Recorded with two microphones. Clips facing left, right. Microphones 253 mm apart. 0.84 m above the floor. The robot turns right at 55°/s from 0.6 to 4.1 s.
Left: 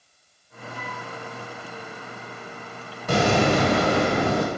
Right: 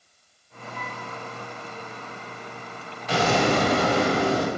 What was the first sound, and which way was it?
A flute, 65° right (ahead or behind).